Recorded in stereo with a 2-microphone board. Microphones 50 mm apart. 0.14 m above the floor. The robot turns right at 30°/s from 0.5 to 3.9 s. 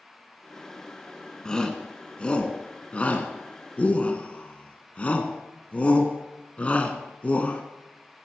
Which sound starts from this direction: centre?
A shout, at 1.4 s.